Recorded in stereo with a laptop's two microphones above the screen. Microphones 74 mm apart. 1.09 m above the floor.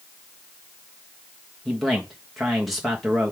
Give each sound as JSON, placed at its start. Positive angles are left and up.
{"t": 1.6, "sound": "a man speaking", "side_deg": 0, "distance_m": 1.5}